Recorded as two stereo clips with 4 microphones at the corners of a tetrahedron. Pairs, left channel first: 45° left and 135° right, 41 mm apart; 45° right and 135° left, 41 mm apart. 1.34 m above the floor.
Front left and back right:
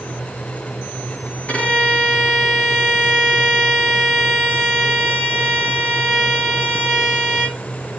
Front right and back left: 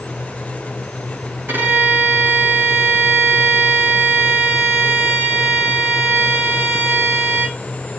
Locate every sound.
1.5 s a violin: 95° left, 3.5 m